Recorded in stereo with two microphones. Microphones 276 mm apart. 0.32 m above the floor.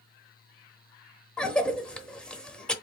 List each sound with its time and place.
1.4 s a cough: 5° left (ahead or behind), 0.9 m